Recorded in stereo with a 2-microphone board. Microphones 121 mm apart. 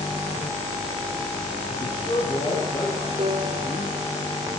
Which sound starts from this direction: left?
A man speaking, at 1.7 s.